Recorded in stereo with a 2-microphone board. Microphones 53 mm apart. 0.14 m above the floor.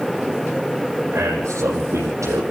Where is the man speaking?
75° right (ahead or behind), 6 m.